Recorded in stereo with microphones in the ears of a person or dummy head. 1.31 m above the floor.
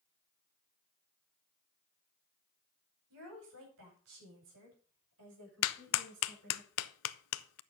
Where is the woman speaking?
80° right, 5.5 m; by 6.6 s 70° right (ahead or behind), 7 m.